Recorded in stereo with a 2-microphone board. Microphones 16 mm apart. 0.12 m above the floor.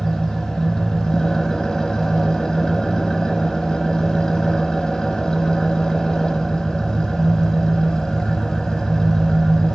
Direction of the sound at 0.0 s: 50° left (ahead or behind).